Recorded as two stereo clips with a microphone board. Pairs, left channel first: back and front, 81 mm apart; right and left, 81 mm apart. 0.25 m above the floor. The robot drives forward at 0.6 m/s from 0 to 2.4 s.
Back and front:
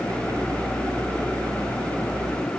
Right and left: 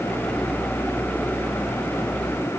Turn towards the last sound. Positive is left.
No sound to turn to.